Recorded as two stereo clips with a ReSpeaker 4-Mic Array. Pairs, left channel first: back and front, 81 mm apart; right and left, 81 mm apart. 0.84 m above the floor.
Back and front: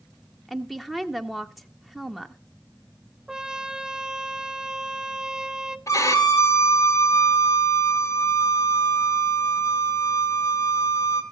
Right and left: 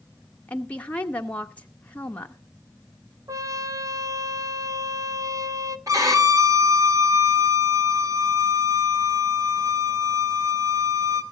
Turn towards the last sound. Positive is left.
turn(degrees=135)